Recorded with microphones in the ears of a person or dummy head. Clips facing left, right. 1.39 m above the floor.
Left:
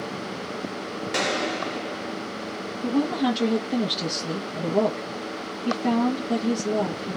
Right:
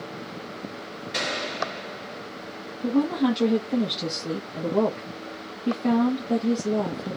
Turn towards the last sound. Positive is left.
turn(degrees=20)  # may be behind; listen again after turning